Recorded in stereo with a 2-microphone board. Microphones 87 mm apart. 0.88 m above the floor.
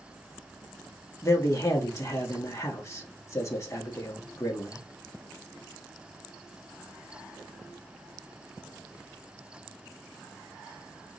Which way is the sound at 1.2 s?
35° left (ahead or behind).